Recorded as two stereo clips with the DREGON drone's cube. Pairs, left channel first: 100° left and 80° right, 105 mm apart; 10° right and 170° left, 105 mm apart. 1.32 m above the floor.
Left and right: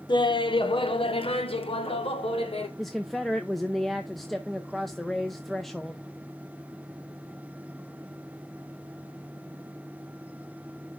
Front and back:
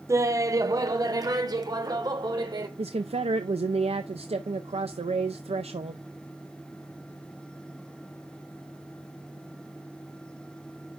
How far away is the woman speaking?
About 0.5 m.